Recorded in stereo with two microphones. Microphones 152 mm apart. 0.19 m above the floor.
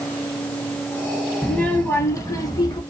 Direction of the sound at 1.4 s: 5° left (ahead or behind).